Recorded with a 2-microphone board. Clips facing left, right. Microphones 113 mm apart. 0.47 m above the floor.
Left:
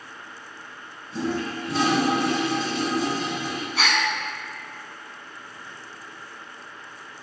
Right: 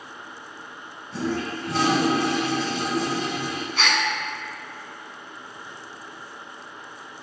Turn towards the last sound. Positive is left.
turn(degrees=5)  # may be behind; listen again after turning